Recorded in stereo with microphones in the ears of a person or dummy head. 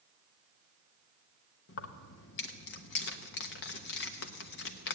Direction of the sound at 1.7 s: 60° left (ahead or behind).